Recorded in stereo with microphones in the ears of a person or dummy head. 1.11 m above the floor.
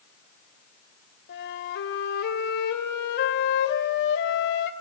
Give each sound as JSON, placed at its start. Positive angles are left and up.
{"t": 1.3, "sound": "a flute", "side_deg": 60, "distance_m": 2.0}